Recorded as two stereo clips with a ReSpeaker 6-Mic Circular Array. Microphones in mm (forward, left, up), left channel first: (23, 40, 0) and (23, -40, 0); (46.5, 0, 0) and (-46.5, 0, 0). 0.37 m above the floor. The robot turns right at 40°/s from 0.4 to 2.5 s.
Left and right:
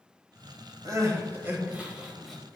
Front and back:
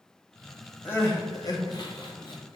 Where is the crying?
60° right, 1.3 m; by 2.6 s 5° left, 1.3 m.